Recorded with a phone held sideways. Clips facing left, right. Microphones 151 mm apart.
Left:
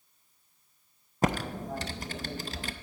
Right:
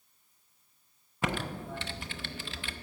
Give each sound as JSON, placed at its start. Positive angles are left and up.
{"t": 1.2, "sound": "typing on a keyboard", "side_deg": 35, "distance_m": 0.5}